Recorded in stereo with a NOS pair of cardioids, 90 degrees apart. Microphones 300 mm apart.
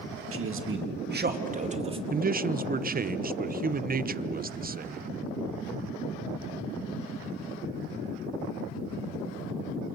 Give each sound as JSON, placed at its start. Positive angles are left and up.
{"t": 0.3, "sound": "a man speaking", "azimuth_deg": -45, "distance_m": 2.5}
{"t": 2.1, "sound": "a man speaking", "azimuth_deg": -30, "distance_m": 1.0}